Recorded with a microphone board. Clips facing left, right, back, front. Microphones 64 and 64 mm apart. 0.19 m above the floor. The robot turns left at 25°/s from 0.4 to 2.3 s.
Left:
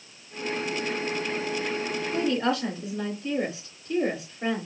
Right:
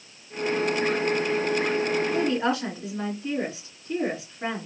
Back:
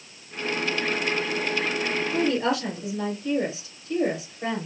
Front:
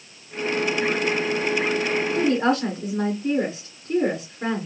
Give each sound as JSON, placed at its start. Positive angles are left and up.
{"t": 2.1, "sound": "a woman speaking", "azimuth_deg": -20, "distance_m": 2.5}